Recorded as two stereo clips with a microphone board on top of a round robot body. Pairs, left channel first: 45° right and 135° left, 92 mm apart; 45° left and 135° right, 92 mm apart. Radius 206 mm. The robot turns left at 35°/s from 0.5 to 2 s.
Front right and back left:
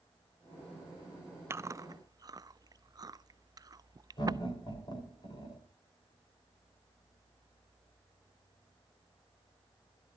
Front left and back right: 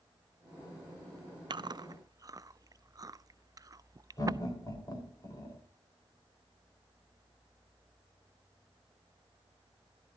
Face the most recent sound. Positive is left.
turn(degrees=-10)